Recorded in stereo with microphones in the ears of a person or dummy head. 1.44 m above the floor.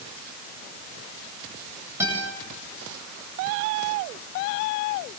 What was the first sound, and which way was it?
A guitar, 10° right (ahead or behind).